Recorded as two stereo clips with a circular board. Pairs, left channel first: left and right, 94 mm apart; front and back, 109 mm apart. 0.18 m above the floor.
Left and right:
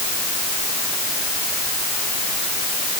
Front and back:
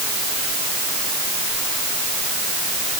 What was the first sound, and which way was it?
Only background noise.